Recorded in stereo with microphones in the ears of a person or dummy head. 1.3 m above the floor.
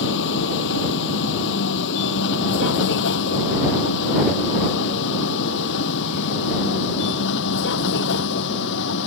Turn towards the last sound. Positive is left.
turn(degrees=75)  # may be behind; listen again after turning